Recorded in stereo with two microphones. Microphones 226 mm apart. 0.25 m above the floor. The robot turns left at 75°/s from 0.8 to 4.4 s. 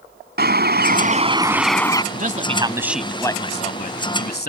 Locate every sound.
0.4 s a bird: 115° right; by 2.0 s 155° left
2.1 s a man speaking: 115° right; by 4.5 s 75° left